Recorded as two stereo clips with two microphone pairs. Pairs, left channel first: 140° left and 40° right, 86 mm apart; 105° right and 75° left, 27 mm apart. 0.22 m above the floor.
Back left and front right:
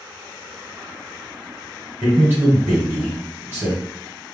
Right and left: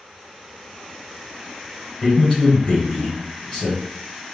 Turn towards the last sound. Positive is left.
turn(degrees=-60)